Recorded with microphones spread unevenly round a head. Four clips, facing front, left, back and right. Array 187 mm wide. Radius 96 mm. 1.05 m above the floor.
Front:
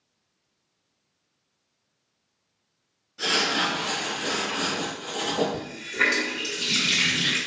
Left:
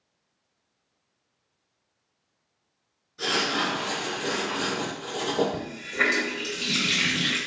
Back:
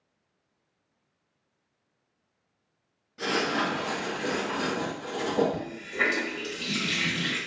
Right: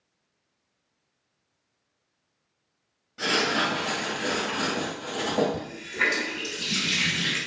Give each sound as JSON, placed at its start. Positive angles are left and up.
{"t": 3.2, "sound": "writing", "azimuth_deg": -115, "distance_m": 1.4}
{"t": 5.5, "sound": "a running tap", "azimuth_deg": 120, "distance_m": 1.0}